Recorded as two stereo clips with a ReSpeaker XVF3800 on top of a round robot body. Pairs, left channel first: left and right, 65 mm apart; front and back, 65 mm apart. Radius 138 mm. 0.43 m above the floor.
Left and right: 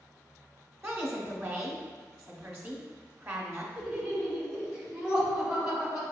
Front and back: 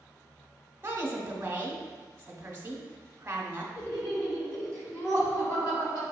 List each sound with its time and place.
0.8 s a woman speaking: 140° right, 1.0 m
3.8 s laughter: 15° right, 2.0 m